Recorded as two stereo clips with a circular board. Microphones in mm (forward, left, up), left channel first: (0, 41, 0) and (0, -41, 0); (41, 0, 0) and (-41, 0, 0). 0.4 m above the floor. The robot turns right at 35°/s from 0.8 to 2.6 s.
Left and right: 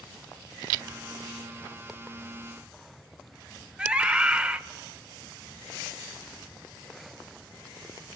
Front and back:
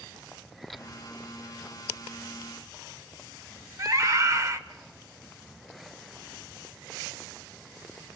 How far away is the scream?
About 1.0 m.